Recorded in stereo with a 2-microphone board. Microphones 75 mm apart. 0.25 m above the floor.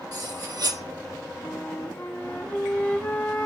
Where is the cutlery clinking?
60° right (ahead or behind), 4 m.